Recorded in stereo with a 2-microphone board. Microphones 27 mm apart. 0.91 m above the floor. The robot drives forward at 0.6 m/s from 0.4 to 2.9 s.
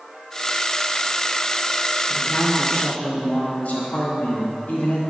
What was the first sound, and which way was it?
A man speaking, 45° left (ahead or behind).